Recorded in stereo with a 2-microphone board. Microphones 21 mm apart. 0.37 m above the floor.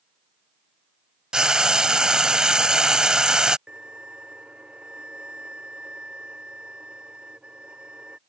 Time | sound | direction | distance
1.3 | frying | 40° right (ahead or behind) | ?
3.7 | a violin | 70° right (ahead or behind) | ?